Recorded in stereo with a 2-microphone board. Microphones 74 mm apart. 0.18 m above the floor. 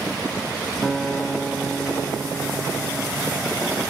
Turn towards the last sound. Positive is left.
turn(degrees=10)  # may be behind; listen again after turning